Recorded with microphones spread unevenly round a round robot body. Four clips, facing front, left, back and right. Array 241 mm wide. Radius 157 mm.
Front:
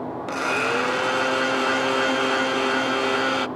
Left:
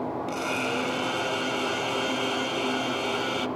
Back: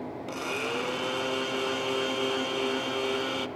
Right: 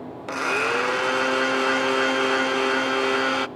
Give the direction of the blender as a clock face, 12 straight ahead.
1 o'clock.